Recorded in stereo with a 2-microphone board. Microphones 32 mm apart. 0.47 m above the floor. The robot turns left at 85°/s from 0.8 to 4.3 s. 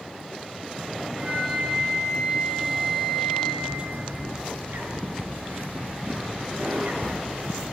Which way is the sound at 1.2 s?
105° right.